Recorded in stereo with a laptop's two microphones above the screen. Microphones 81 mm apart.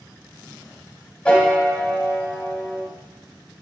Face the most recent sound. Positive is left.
turn(degrees=15)  # may be behind; listen again after turning